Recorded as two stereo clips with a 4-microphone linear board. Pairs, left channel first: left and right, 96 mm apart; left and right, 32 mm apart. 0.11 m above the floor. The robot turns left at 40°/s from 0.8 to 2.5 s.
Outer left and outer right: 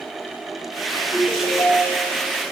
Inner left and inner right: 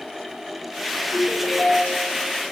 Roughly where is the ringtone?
Ahead left.